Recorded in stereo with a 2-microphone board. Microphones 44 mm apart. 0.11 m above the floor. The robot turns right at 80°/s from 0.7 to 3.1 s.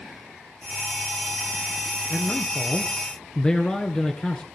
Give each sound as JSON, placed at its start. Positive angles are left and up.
{"t": 2.1, "sound": "a man speaking", "azimuth_deg": 65, "distance_m": 1.5}